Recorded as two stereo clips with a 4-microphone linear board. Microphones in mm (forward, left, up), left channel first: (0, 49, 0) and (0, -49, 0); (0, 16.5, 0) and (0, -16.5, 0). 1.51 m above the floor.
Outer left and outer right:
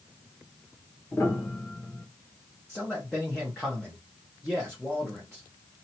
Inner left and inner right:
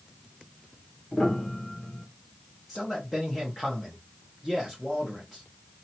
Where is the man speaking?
5° left (ahead or behind), 1.2 m.